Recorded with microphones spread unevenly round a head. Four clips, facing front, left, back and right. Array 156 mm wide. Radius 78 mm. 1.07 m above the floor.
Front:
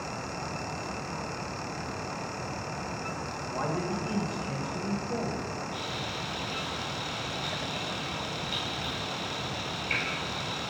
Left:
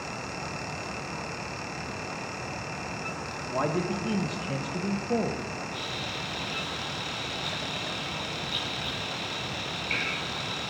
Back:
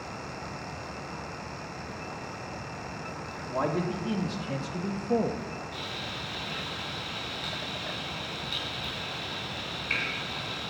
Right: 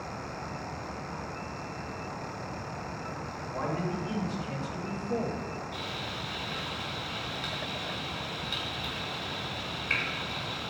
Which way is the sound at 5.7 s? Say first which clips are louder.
Left 2 dB, front 3 dB; 90° right.